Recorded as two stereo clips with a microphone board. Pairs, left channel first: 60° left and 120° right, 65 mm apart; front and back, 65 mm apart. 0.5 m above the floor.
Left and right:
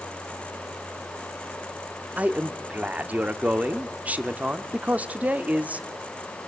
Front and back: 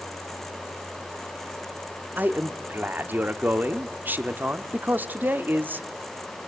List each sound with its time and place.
2.2 s a man speaking: 165° right, 1.1 m